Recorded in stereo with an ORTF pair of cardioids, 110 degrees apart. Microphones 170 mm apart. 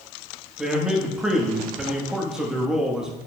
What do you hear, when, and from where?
0.6 s a man speaking: 5° right, 1.1 m